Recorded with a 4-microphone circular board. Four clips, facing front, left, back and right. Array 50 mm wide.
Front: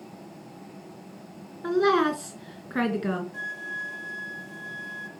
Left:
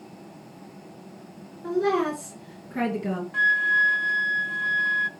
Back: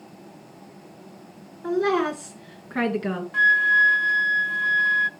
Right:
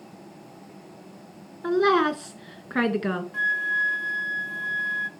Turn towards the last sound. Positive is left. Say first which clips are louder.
# left 5 dB, back 17 dB
turn(degrees=155)